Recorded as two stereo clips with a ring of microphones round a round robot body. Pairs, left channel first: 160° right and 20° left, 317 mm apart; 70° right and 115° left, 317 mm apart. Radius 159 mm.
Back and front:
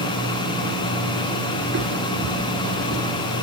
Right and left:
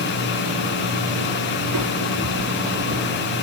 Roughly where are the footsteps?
Left.